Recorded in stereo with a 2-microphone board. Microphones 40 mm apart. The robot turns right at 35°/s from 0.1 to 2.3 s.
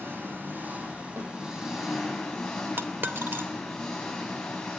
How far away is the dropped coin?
About 1.5 m.